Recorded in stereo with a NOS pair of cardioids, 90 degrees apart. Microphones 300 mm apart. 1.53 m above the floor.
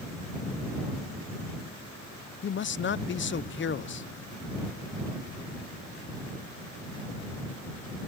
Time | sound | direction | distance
2.4 | a man speaking | 40° left | ?